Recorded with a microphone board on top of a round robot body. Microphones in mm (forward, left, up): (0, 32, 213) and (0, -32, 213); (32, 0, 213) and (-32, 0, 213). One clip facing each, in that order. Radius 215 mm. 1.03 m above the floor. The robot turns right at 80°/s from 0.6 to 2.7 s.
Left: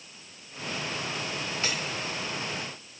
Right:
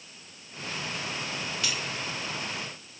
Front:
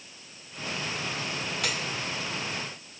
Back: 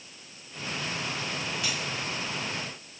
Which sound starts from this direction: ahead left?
Cutlery clinking, at 1.6 s.